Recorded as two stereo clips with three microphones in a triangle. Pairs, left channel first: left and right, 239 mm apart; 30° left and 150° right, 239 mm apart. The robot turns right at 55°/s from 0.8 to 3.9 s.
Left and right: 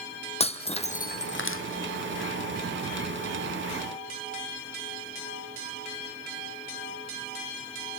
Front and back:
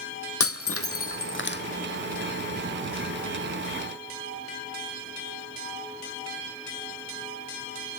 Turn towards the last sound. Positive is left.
turn(degrees=-160)